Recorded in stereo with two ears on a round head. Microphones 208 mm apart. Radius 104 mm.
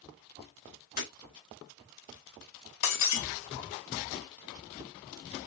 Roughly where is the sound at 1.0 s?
Left.